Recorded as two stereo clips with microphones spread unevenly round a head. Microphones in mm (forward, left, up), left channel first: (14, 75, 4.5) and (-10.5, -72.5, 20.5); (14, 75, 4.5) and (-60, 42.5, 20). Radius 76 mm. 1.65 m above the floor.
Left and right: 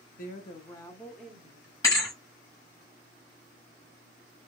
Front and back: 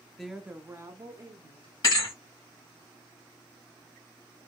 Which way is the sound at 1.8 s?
20° left.